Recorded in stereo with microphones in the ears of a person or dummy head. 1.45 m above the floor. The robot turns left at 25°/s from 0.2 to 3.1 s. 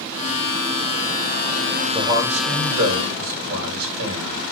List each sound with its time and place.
1.9 s a man speaking: 15° right, 7.5 m; by 4.5 s 50° right, 7.5 m